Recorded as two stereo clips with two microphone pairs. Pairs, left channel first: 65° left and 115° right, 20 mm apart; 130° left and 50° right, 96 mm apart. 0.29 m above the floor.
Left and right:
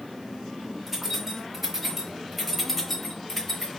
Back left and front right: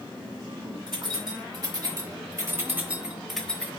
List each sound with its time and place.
0.9 s keys jangling: 45° right, 1.5 m; by 3.7 s 85° left, 0.9 m